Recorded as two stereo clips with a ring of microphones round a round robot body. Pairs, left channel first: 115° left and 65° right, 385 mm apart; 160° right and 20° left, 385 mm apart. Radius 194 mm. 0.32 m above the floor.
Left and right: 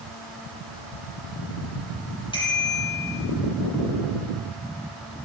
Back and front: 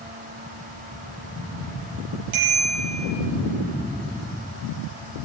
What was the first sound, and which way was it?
A bicycle bell, 35° left.